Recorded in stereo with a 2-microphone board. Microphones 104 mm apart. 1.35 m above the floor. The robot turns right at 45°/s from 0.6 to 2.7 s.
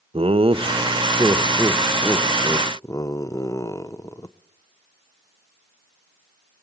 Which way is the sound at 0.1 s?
60° right (ahead or behind).